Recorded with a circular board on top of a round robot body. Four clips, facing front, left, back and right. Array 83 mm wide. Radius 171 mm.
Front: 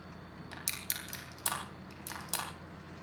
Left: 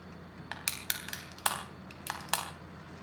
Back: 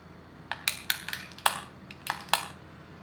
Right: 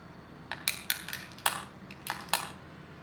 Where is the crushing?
175° left, 3.5 m.